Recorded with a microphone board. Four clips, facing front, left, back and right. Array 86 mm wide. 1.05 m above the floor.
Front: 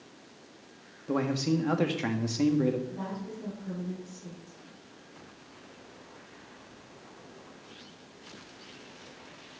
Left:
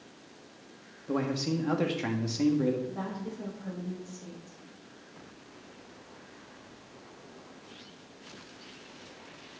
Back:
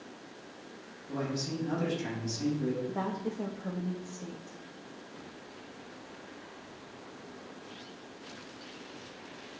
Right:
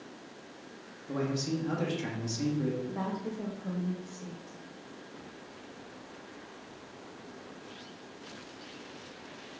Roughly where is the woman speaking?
Behind.